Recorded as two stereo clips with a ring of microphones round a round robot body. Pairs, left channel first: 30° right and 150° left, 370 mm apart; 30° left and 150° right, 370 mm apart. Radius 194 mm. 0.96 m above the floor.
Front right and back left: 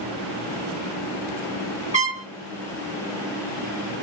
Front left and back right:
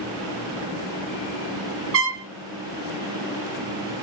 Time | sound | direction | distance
1.9 | a trumpet | 155° right | 0.9 m